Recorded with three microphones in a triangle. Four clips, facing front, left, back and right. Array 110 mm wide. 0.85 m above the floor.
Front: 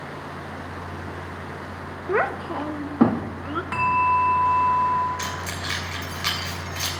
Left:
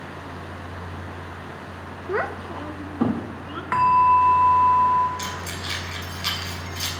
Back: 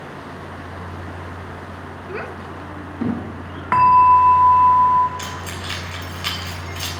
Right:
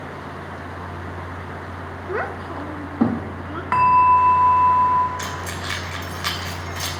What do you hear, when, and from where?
2.1 s a child speaking: 15° left, 0.5 m; by 3.6 s 15° right, 1.6 m
3.7 s a bell: 150° right, 0.6 m
5.2 s keys jangling: 95° right, 3 m